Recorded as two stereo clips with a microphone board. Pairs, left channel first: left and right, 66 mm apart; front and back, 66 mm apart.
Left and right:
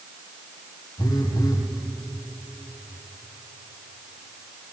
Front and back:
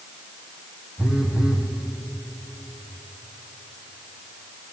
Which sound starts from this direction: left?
A phone buzzing, at 1.0 s.